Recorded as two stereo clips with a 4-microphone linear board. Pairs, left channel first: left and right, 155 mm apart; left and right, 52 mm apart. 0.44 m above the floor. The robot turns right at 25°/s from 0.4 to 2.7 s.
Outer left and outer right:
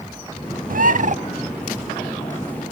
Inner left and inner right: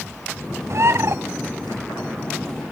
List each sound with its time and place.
0.7 s a bird: 65° right (ahead or behind), 0.5 m; by 1.2 s 55° right (ahead or behind), 0.5 m